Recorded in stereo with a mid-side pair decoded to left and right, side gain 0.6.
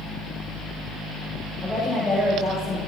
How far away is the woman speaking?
About 8 m.